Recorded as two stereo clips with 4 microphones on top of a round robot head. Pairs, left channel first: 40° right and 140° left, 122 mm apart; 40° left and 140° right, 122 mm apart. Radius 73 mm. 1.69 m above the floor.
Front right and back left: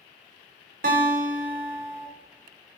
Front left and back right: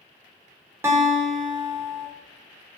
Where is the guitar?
150° left, 3 m.